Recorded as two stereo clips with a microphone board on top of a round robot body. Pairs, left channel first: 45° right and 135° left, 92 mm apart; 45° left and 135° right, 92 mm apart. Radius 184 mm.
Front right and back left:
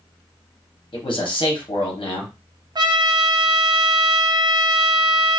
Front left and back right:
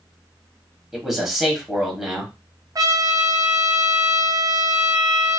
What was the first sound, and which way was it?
A man speaking, 50° right.